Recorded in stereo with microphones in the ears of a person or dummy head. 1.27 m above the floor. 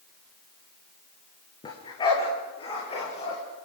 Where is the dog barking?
25° left (ahead or behind), 5 m; by 3.4 s 35° left (ahead or behind), 6.5 m.